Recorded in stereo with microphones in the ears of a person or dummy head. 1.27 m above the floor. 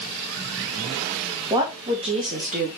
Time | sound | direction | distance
1.5 | a woman speaking | 20° right (ahead or behind) | 2 m